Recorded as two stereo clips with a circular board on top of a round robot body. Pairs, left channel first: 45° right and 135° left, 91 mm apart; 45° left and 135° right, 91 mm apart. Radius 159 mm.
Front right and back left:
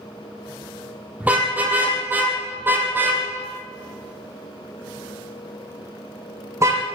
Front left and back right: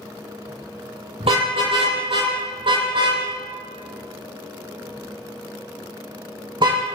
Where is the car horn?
150° right, 8.5 m; by 6.8 s 170° right, 14.5 m.